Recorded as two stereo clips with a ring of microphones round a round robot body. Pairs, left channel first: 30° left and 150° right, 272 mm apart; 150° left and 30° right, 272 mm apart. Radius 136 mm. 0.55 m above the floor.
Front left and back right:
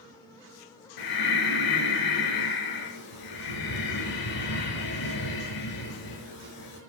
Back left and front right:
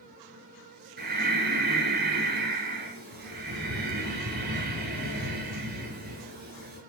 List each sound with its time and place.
1.0 s breathing: 25° left, 4.5 m